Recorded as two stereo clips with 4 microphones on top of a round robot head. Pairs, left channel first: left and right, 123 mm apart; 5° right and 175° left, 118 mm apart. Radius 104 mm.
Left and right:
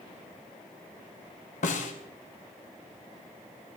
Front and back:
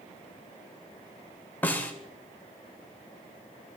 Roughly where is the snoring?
I don't hear snoring.